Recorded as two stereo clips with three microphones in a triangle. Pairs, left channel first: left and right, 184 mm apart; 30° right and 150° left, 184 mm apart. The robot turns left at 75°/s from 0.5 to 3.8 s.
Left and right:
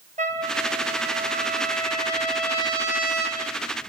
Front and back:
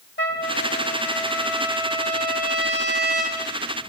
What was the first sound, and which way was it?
A trumpet, 40° right.